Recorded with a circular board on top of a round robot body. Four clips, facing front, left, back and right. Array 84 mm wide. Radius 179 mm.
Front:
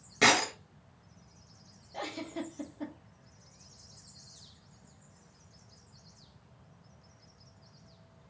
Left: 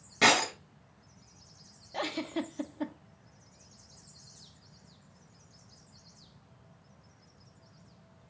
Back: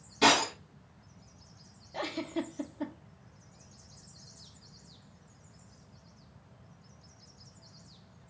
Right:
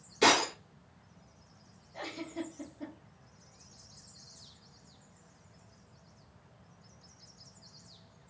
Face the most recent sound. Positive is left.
turn(degrees=105)